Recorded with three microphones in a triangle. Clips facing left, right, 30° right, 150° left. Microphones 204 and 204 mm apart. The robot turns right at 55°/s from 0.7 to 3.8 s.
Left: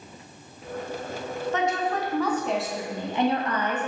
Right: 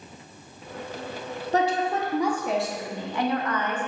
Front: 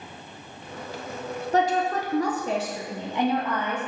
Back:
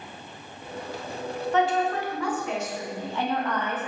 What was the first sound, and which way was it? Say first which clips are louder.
A woman speaking: right 4 dB, front 1 dB; 60° right.